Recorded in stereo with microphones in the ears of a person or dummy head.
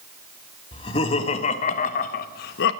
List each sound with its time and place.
0.7 s laughter: 30° left (ahead or behind), 1.6 m; by 2.7 s 65° left (ahead or behind), 0.9 m